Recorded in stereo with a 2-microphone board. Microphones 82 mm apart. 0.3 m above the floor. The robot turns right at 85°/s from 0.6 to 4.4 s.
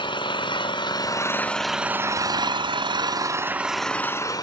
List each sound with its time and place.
0.0 s an engine running: 90° left, 0.8 m; by 4.4 s 55° left, 0.8 m